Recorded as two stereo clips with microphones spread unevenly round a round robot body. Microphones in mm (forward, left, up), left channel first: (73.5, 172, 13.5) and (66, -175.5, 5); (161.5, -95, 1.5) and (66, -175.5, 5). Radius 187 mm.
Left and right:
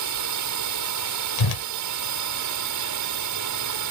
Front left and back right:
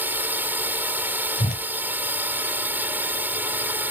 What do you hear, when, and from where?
0.0 s a drone: 65° right
1.4 s a whoosh: 75° left